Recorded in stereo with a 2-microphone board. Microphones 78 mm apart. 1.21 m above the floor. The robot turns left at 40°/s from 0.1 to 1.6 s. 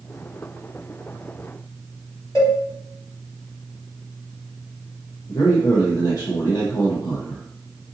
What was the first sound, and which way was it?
A cowbell, 40° left (ahead or behind).